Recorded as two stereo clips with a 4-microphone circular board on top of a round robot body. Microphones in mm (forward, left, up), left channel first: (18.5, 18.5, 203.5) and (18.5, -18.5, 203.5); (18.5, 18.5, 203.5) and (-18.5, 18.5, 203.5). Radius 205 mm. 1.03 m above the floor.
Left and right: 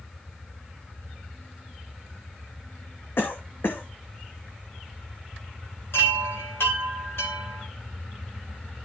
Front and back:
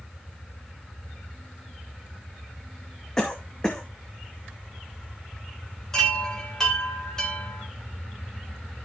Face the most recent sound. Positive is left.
turn(degrees=75)